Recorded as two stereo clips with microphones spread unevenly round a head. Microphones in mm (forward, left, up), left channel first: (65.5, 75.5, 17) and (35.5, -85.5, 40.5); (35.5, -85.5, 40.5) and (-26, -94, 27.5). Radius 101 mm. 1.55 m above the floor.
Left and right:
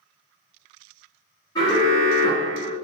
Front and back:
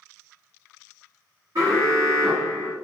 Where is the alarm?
150° left, 1.0 m.